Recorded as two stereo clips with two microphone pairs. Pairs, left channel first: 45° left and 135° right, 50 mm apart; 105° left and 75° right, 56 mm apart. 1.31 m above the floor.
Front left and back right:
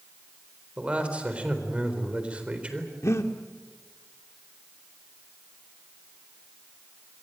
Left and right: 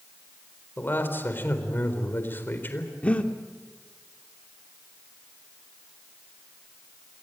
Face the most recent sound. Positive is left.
turn(degrees=40)